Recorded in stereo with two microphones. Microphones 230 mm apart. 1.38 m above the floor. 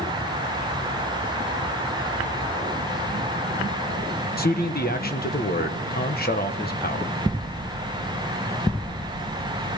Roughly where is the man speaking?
Left.